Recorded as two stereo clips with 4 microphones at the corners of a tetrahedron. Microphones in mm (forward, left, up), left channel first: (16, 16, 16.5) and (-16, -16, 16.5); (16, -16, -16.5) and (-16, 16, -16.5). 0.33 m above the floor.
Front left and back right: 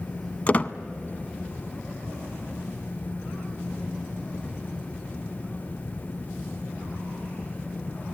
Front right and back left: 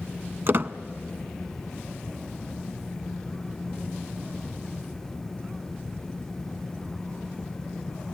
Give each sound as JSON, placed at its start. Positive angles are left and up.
{"t": 0.5, "sound": "a squeak", "azimuth_deg": 100, "distance_m": 0.5}